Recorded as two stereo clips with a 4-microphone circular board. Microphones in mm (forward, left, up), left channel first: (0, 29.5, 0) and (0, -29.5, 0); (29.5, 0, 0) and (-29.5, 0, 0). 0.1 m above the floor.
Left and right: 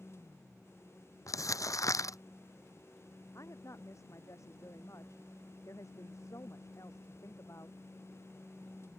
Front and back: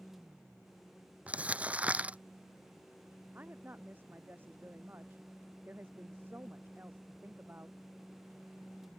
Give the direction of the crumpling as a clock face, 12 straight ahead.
8 o'clock.